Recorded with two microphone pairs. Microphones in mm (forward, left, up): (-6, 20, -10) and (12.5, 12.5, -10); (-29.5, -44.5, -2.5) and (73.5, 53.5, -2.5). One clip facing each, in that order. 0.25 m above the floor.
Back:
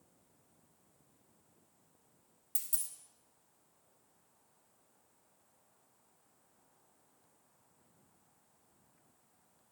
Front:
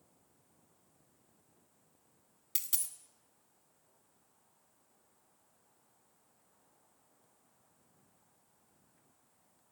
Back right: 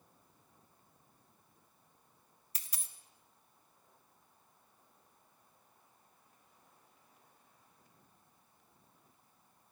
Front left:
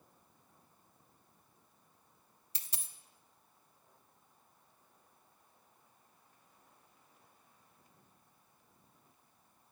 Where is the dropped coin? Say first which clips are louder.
Front 4 dB, front left 2 dB; 15° right, 0.6 m.